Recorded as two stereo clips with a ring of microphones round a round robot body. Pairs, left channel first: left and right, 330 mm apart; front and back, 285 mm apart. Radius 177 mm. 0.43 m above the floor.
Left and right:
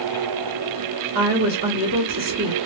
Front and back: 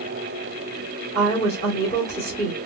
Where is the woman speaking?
75° right, 1.1 m.